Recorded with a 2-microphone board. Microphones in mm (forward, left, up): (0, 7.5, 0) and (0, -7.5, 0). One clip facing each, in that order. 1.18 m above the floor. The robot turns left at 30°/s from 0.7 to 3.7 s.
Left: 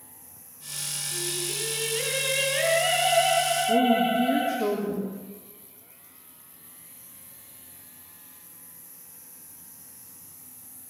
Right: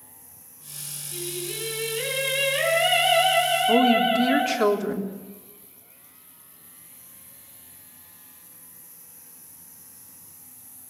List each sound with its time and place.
1.1 s singing: 50° left, 7.5 m; by 4.5 s 30° right, 7.5 m
3.7 s a woman speaking: 80° right, 3.5 m